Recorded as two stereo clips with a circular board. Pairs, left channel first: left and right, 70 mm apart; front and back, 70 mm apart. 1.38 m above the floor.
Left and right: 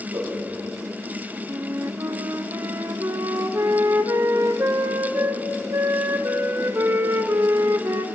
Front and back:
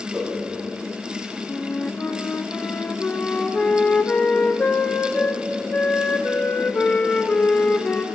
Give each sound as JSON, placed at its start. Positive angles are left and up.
{"t": 0.1, "sound": "a whoosh", "azimuth_deg": -100, "distance_m": 3.0}
{"t": 1.5, "sound": "a flute", "azimuth_deg": -65, "distance_m": 0.7}